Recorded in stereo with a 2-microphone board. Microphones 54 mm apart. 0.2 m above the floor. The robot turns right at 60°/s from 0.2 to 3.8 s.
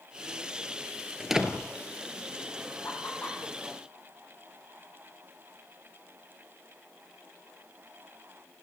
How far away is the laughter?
About 8 m.